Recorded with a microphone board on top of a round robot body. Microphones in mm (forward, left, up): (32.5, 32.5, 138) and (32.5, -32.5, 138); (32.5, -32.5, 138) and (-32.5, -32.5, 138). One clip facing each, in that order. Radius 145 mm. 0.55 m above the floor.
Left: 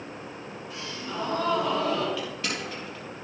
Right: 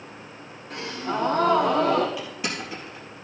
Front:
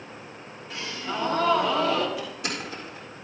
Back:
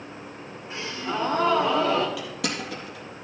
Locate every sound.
0.7 s a gasp: 120° right, 2.5 m
2.2 s crushing: 165° right, 3.5 m